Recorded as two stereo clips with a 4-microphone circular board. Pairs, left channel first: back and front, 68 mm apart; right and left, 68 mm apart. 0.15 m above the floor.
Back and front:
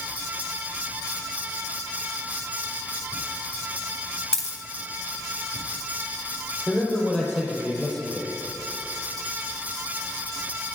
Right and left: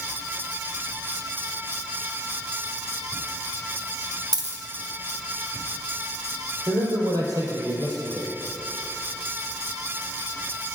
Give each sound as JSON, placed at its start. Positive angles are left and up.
{"t": 4.3, "sound": "a dropped coin", "azimuth_deg": 100, "distance_m": 2.5}
{"t": 6.7, "sound": "a man speaking", "azimuth_deg": 85, "distance_m": 3.5}